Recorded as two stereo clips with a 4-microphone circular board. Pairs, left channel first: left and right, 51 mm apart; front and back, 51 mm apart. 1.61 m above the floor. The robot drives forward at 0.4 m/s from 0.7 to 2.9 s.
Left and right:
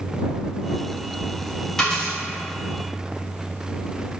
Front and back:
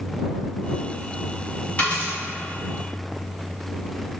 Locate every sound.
1.8 s a dropped coin: 20° left, 1.1 m; by 2.2 s 25° left, 1.0 m